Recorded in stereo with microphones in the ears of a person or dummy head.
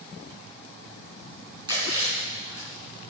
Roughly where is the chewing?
Right.